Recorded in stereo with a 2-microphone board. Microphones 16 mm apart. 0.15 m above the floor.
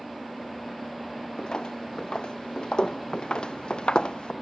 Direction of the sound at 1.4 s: 65° left (ahead or behind).